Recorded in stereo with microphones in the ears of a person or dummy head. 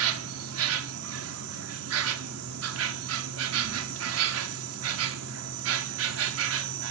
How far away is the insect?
About 0.8 m.